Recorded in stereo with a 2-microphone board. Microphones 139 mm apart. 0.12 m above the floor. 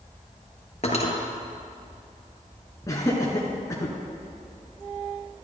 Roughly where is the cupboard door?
No cupboard door in this recording.